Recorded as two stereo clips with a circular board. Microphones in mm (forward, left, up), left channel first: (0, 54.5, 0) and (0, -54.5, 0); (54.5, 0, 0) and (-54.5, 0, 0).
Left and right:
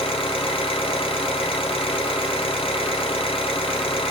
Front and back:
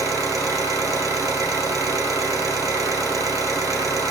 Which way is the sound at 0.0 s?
120° left.